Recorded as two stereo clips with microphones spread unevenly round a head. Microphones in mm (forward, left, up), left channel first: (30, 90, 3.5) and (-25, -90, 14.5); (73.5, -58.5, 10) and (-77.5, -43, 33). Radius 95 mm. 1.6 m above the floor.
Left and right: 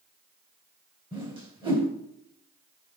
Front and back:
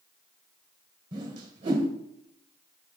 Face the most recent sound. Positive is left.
turn(degrees=-160)